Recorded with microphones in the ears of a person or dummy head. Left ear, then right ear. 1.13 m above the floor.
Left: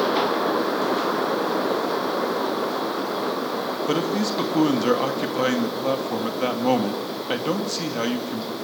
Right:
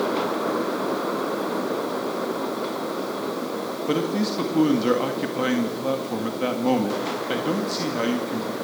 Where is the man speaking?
20° left (ahead or behind), 2 m.